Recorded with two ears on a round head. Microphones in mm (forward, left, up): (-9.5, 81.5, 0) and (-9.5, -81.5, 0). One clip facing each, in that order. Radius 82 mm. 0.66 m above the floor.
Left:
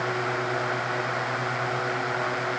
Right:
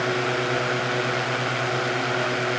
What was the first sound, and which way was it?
Only background noise.